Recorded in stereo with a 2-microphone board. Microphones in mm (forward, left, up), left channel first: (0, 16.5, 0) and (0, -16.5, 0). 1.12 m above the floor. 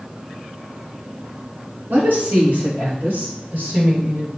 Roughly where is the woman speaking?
Right.